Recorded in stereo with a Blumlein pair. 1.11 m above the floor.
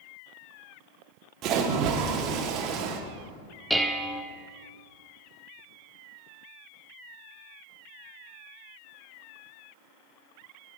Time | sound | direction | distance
1.4 | a splash | 35° right | 1.2 m
3.7 | dishes clattering | 5° right | 0.7 m